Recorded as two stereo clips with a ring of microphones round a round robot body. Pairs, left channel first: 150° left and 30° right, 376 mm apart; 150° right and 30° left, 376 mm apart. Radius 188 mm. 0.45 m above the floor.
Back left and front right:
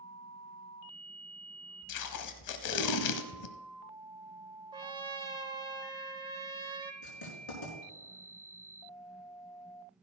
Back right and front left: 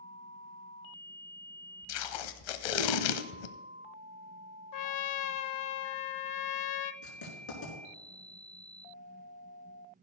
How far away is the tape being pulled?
About 0.8 m.